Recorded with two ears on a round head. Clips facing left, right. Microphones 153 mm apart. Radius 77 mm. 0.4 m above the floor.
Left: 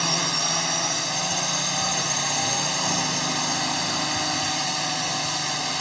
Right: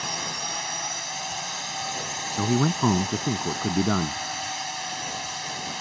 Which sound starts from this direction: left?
A drone, at 0.0 s.